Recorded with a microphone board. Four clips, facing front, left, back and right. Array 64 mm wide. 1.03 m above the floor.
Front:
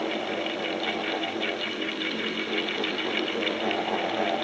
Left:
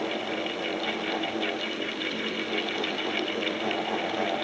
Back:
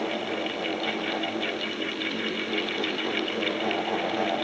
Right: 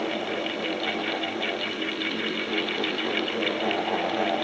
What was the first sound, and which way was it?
Only background noise.